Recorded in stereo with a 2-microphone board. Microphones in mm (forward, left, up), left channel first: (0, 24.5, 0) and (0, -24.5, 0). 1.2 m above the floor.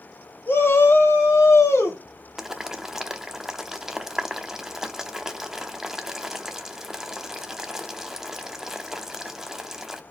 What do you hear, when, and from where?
0.5 s a shout: 50° left (ahead or behind), 1.9 m; by 2.0 s 80° left, 2.5 m
2.4 s boiling: 10° right (ahead or behind), 0.8 m